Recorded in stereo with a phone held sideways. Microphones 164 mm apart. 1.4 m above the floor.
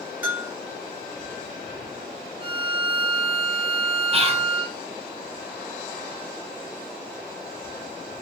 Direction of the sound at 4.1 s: 40° right (ahead or behind).